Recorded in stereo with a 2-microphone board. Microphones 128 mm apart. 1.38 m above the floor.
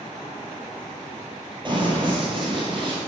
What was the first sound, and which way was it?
Running footsteps, 35° right (ahead or behind).